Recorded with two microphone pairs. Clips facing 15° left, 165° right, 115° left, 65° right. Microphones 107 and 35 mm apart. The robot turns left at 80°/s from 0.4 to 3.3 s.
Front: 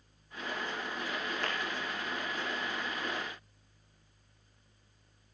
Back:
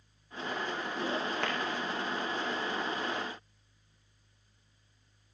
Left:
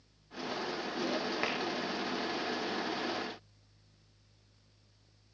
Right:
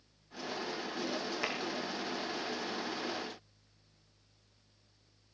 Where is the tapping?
170° left, 5 m; by 1.6 s 160° left, 5 m.